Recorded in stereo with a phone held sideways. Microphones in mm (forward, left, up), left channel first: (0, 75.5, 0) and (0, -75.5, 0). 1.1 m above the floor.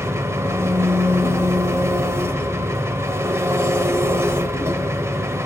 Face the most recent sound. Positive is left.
turn(degrees=-20)  # may be behind; listen again after turning